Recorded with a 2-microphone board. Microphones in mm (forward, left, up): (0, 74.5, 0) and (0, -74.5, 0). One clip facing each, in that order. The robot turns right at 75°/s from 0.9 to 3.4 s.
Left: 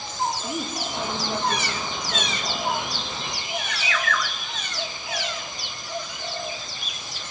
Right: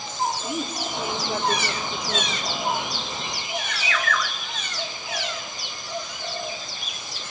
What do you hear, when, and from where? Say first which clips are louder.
0.4 s a woman speaking: right 1 dB; 175° left, 3.5 m; by 2.4 s 80° right, 3.5 m